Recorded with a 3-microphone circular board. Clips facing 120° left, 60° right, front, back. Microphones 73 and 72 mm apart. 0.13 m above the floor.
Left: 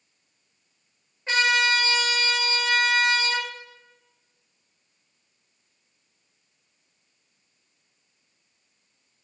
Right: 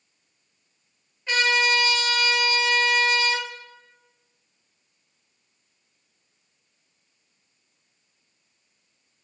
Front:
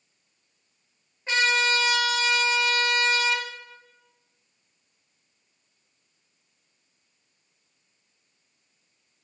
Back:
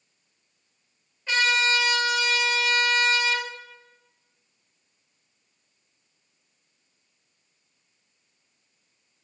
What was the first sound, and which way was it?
A trumpet, 60° left.